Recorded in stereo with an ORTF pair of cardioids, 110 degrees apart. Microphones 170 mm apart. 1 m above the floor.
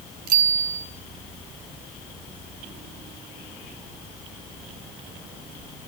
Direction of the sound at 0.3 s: 60° right.